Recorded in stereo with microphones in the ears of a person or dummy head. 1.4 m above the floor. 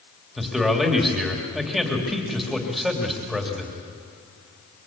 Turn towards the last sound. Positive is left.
turn(degrees=0)  # may be behind; listen again after turning